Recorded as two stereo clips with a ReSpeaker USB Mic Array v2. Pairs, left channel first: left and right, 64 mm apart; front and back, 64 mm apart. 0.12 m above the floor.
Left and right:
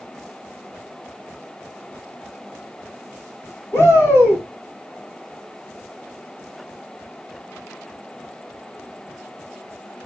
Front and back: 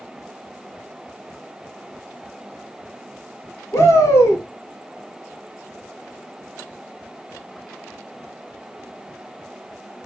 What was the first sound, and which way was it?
A shout, 45° left.